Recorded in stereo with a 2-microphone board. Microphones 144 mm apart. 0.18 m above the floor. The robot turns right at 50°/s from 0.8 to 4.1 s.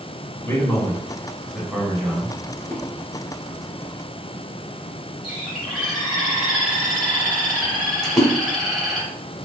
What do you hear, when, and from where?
0.4 s a man speaking: 20° left (ahead or behind), 1.3 m; by 2.3 s 10° right (ahead or behind), 1.3 m
2.6 s a splash: 25° left (ahead or behind), 0.9 m; by 2.8 s 15° left (ahead or behind), 0.9 m
5.2 s a bird: centre (ahead or behind), 2.0 m
8.0 s a splash: 30° left (ahead or behind), 1.1 m